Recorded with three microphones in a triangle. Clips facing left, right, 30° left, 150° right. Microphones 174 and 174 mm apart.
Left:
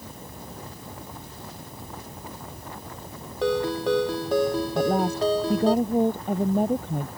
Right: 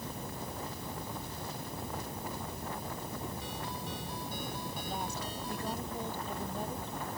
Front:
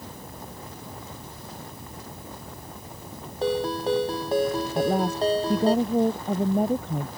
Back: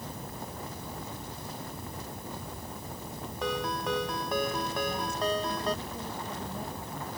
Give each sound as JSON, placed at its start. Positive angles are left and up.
{"t": 3.4, "sound": "a ringtone", "azimuth_deg": 90}
{"t": 4.8, "sound": "a woman speaking", "azimuth_deg": 55}